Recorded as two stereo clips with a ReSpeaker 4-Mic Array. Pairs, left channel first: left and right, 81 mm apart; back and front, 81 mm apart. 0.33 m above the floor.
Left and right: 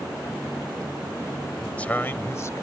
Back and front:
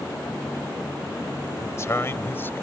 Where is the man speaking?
160° left; by 2.6 s 120° left.